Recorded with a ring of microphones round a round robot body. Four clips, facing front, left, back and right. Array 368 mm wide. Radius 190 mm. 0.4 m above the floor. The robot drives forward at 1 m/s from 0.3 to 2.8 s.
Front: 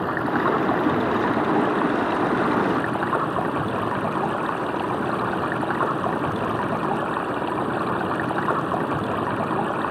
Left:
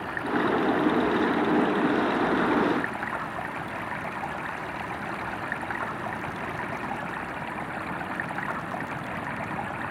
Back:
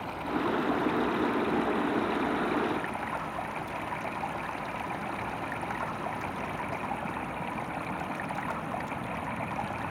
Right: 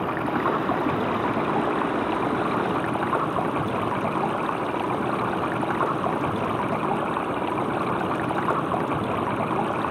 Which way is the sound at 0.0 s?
35° right.